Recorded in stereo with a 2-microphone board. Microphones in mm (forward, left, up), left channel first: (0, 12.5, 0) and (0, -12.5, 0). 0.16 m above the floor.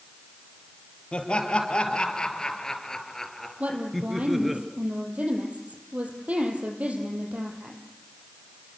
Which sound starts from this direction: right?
A woman speaking, at 3.6 s.